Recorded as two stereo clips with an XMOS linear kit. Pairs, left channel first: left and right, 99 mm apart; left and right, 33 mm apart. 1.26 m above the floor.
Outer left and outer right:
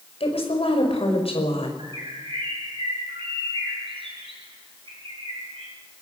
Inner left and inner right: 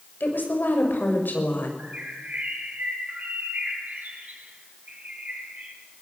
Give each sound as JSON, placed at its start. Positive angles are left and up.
{"t": 0.2, "sound": "a woman speaking", "side_deg": 75, "distance_m": 5.5}
{"t": 1.8, "sound": "a bird", "side_deg": -60, "distance_m": 6.5}